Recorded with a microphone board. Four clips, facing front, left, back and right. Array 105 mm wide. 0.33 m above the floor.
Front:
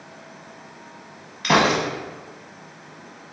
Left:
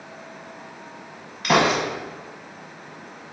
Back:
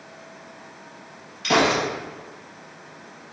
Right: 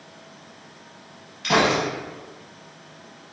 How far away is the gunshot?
About 0.8 m.